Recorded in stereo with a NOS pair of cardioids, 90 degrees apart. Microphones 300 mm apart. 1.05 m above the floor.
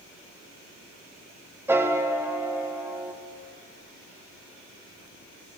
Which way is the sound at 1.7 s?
10° right.